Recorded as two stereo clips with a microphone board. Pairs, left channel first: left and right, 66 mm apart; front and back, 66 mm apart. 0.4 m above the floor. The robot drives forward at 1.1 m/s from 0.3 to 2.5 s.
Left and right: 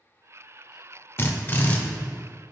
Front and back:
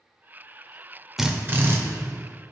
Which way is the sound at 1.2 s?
95° left.